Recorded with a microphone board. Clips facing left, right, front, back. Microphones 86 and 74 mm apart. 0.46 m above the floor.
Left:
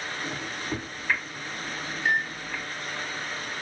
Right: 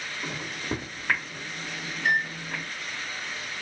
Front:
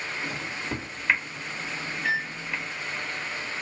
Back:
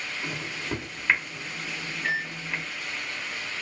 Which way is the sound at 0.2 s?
95° right.